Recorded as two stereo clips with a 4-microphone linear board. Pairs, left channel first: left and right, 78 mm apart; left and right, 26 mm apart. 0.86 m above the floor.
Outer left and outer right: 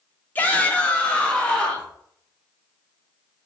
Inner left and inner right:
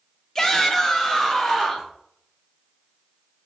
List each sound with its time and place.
0.3 s a shout: 20° left (ahead or behind), 1.2 m; by 1.9 s 10° left (ahead or behind), 2 m